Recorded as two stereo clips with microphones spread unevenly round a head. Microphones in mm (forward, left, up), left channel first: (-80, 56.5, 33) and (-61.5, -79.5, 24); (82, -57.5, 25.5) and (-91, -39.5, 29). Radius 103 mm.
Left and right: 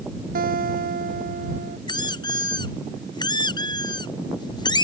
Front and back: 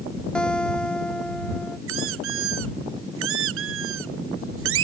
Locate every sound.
0.3 s a guitar: 90° right
1.9 s a squeak: 160° left